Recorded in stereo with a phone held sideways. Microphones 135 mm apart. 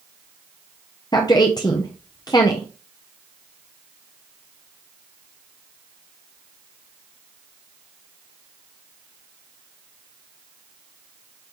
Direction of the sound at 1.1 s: 30° left (ahead or behind).